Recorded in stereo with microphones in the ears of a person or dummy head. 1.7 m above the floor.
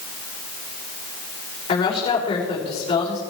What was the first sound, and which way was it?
A woman speaking, 30° left (ahead or behind).